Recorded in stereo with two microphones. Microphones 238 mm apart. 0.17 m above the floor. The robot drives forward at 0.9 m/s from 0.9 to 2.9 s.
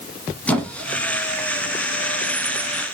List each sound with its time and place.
0.5 s a squeak: 5° left (ahead or behind), 0.7 m